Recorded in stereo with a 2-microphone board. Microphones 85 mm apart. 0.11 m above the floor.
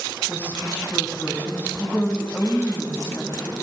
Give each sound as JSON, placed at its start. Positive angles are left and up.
{"t": 0.3, "sound": "a woman speaking", "side_deg": 25, "distance_m": 5.0}